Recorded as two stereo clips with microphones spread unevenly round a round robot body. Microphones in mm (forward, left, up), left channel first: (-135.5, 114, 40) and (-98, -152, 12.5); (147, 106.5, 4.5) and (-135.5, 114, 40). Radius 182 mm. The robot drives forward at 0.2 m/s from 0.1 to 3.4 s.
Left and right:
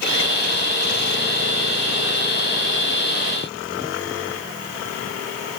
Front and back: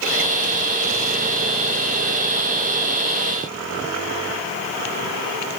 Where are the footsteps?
No footsteps in this recording.